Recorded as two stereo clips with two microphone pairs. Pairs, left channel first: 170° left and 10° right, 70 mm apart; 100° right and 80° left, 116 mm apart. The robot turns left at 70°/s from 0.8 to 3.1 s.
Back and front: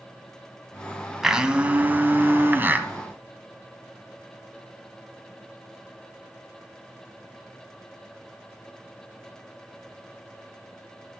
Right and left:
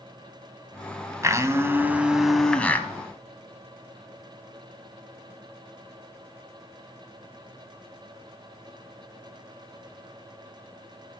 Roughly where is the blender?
Left.